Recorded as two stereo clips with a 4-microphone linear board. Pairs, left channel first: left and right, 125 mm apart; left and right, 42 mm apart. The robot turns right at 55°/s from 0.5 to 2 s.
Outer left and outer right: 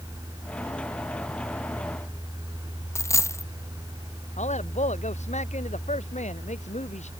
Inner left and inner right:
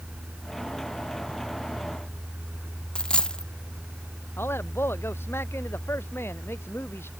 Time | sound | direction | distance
3.0 | a dropped coin | 20° left (ahead or behind) | ?
4.4 | a man speaking | 70° left (ahead or behind) | ?